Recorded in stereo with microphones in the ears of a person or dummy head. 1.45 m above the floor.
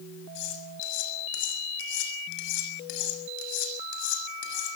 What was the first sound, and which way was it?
Cutlery clinking, 65° left (ahead or behind).